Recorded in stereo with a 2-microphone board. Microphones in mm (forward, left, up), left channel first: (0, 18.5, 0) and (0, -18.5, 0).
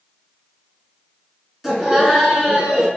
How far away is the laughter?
About 1.3 m.